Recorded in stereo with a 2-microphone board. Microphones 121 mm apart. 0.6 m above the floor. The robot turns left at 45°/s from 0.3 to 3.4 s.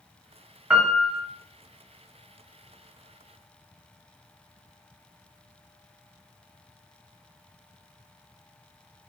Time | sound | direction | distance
0.7 | a piano | 10° right (ahead or behind) | 0.6 m